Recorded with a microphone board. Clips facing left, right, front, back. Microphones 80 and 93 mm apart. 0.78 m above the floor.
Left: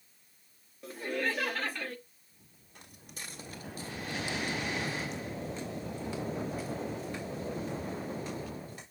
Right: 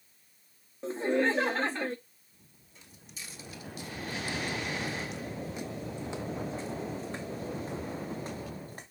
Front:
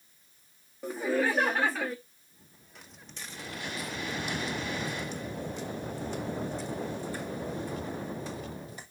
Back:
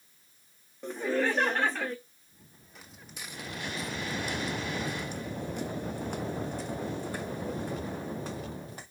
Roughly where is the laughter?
Right.